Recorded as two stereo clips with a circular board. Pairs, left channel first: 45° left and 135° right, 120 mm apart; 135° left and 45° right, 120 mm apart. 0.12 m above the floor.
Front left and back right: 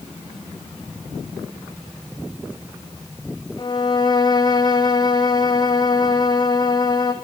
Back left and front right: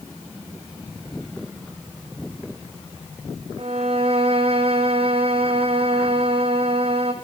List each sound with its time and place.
3.6 s a violin: 10° right, 2 m